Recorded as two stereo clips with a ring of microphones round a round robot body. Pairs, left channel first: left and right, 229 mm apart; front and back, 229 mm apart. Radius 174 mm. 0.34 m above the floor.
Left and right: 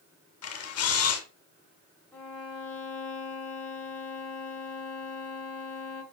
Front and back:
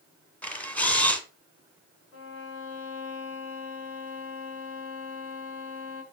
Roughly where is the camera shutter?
Left.